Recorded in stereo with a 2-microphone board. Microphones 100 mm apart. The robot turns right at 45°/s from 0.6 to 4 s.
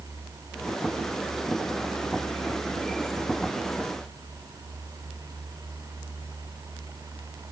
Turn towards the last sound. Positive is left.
No sound to turn to.